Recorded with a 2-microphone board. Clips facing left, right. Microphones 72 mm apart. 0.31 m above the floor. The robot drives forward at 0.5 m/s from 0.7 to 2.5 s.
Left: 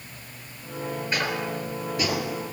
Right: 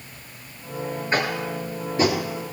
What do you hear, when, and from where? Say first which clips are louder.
1.1 s tapping: right 4 dB; 40° right (ahead or behind), 4.5 m; by 2.2 s 35° right (ahead or behind), 5 m